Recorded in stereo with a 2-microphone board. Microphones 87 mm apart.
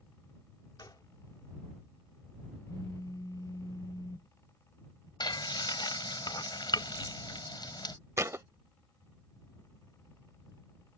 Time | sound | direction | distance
0.8 | a gunshot | 55° left (ahead or behind) | ?
2.7 | a phone buzzing | 45° left (ahead or behind) | ?
5.2 | frying | 55° left (ahead or behind) | ?
8.2 | a thud | 35° right (ahead or behind) | ?